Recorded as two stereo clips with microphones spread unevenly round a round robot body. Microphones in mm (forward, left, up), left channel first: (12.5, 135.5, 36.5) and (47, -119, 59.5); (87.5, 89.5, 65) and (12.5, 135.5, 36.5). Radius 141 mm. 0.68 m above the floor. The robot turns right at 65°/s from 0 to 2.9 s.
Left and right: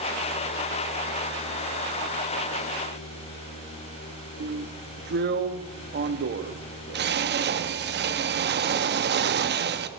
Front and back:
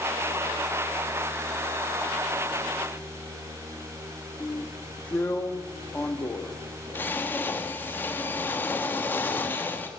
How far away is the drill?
About 1.3 m.